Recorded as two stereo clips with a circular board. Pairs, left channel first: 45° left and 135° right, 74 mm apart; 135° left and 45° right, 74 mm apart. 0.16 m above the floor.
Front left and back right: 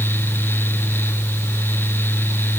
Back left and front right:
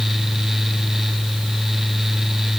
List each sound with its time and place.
Only background noise.